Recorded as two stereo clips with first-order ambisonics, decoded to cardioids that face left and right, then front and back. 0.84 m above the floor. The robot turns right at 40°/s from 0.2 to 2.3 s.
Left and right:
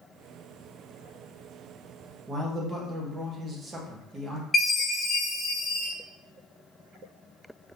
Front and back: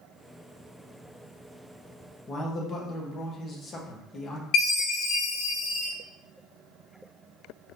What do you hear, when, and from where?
2.3 s a man speaking: 40° right, 0.8 m
4.5 s a chime: 15° left, 1.6 m